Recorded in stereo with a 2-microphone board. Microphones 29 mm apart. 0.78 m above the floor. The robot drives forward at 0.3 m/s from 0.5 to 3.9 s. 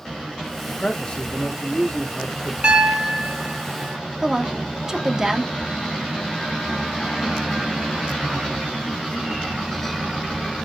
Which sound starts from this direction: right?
A piano, at 2.6 s.